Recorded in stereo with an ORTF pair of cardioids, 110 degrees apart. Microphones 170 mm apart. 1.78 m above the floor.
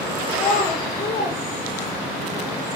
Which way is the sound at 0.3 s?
20° left.